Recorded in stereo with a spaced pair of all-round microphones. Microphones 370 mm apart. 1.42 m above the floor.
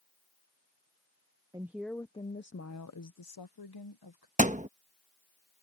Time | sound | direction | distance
1.5 | a woman speaking | 10° right (ahead or behind) | ?
4.4 | a thud | 20° right (ahead or behind) | ?